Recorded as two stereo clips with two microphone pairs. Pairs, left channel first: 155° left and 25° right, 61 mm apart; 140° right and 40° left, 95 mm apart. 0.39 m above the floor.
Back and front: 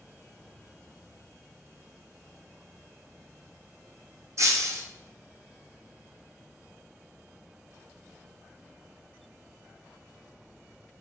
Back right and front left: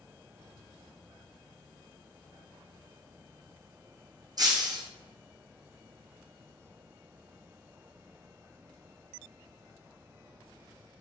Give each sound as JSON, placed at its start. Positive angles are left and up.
{"t": 4.4, "sound": "breaking glass", "azimuth_deg": 0, "distance_m": 0.9}